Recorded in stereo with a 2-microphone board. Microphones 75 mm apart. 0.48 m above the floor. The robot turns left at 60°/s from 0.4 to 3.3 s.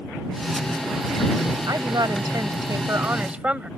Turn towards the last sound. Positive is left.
turn(degrees=-160)